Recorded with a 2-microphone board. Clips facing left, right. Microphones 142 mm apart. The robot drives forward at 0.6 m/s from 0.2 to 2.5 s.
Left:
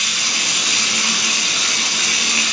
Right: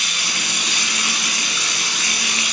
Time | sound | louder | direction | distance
0.0 | running water | left 1 dB | 90° left | 8 m